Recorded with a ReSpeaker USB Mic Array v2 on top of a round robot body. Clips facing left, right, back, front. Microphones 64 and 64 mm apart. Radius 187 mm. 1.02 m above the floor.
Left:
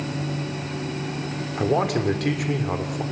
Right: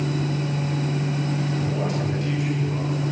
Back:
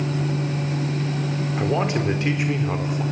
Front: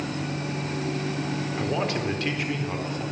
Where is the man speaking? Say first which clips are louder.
Left 4 dB, back 5 dB; 110° left, 4.5 m.